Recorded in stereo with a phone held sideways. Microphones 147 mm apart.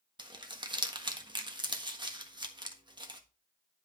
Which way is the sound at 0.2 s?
30° right (ahead or behind).